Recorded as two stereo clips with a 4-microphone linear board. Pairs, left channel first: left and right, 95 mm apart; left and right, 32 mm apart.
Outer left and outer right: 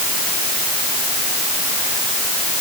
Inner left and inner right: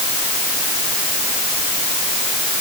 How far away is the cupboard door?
I don't hear a cupboard door.